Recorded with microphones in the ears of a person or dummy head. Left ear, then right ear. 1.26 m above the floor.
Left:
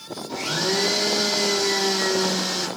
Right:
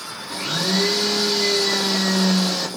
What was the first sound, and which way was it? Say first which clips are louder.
A blender: right 1 dB; 25° right (ahead or behind).